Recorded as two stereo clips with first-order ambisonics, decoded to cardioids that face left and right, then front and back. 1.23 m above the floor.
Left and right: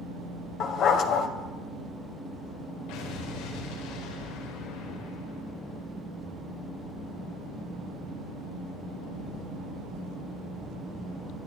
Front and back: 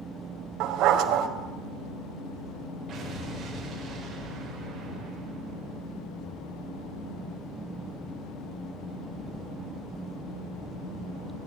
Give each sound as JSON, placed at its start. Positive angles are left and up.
{"t": 0.6, "sound": "a dog barking", "azimuth_deg": 140, "distance_m": 2.0}
{"t": 2.9, "sound": "an explosion", "azimuth_deg": 110, "distance_m": 5.5}